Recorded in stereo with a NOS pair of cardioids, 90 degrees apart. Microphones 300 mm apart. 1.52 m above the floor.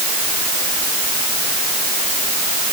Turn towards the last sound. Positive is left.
No sound to turn to.